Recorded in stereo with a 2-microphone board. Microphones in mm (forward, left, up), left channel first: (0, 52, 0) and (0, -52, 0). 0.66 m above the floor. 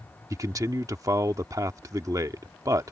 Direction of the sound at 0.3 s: 35° right (ahead or behind).